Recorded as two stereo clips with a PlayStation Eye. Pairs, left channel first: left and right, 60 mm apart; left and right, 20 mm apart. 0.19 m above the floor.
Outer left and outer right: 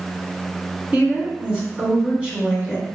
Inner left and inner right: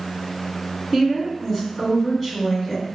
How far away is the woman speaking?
About 2.0 m.